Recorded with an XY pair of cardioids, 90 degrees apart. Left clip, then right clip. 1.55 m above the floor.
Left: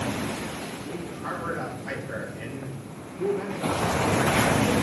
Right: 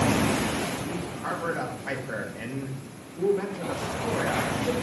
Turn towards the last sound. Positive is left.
turn(degrees=-50)